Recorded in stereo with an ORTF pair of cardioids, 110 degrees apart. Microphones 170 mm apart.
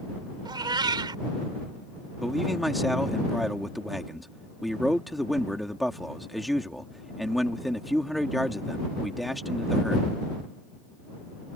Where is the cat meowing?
25° right.